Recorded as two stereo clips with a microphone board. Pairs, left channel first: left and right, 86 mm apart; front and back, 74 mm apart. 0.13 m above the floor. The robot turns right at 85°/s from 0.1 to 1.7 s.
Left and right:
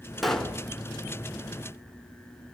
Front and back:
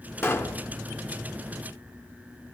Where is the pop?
Straight ahead, 1.1 m; by 0.6 s 35° left, 1.1 m.